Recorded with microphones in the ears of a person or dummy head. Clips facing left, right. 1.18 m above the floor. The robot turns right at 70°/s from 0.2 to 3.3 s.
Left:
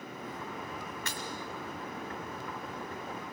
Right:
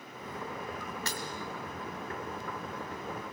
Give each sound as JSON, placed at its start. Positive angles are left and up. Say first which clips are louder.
{"t": 1.1, "sound": "breaking glass", "louder": "right 2 dB", "side_deg": -35, "distance_m": 1.6}